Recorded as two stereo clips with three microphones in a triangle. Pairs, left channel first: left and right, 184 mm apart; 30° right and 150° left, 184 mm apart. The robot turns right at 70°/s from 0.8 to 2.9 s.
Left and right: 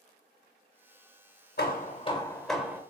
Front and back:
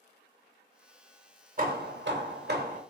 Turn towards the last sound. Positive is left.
turn(degrees=-155)